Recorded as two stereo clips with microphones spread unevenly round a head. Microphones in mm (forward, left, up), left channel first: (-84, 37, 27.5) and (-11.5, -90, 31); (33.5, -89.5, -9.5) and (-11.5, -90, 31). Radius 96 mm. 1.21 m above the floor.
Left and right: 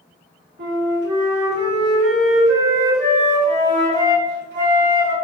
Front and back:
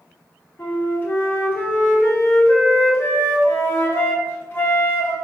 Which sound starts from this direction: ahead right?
A flute, at 0.6 s.